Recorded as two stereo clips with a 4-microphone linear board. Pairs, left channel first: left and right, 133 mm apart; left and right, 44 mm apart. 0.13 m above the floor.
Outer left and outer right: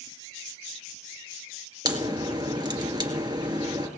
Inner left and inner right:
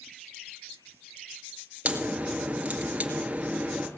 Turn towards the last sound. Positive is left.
turn(degrees=-35)  # may be behind; listen again after turning